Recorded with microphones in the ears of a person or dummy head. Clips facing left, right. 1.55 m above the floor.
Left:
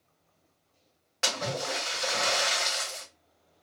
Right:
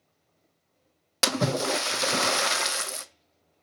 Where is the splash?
60° right (ahead or behind), 0.5 m.